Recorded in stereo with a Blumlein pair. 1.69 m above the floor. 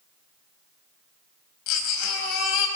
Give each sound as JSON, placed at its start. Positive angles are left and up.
{"t": 1.7, "sound": "a baby crying", "azimuth_deg": 40, "distance_m": 4.5}